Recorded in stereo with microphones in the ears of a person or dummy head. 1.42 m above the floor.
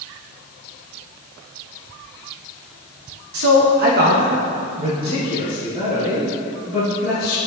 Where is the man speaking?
65° right (ahead or behind), 1.0 m; by 7.4 s centre (ahead or behind), 2.5 m.